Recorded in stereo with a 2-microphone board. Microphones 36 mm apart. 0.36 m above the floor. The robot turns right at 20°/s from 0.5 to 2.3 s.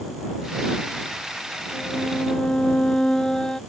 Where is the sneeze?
I don't hear a sneeze.